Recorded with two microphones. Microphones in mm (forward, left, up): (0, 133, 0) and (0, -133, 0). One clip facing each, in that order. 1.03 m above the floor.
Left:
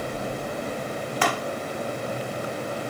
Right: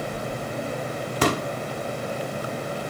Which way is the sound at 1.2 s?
40° right (ahead or behind).